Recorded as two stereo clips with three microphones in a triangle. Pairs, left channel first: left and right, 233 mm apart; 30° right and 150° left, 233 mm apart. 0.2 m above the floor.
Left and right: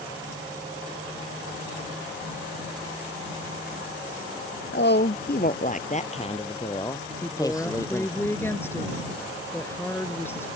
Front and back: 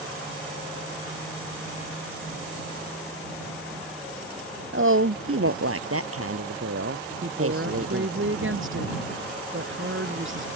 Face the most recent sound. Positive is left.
turn(degrees=170)